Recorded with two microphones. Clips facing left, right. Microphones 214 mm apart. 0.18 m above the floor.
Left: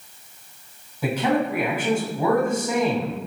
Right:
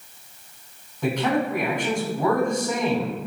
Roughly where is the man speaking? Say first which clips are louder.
Left 1 dB; centre.